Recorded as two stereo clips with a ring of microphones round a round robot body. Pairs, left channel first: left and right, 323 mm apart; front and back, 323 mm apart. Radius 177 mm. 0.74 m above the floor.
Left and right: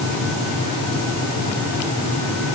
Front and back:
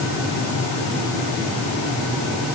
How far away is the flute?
No flute in this recording.